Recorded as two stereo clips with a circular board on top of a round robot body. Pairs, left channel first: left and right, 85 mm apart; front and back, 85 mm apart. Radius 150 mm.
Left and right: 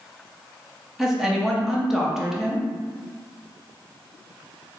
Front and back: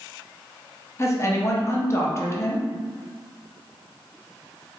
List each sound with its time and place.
1.0 s a woman speaking: 10° right, 0.9 m